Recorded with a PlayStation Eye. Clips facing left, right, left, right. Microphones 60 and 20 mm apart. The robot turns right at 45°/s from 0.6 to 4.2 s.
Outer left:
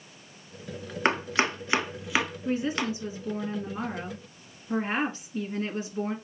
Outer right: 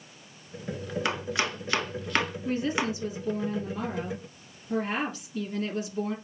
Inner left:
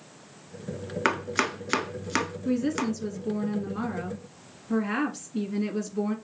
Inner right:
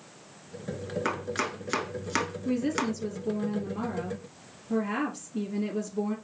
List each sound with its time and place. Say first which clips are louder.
1.1 s chopping: outer left 6 dB, inner left 6 dB; 40° left (ahead or behind), 0.5 m; by 2.9 s 20° right (ahead or behind), 0.5 m
2.5 s a woman speaking: even, inner left 2 dB; 35° left, 1.7 m; by 6.2 s 115° left, 1.7 m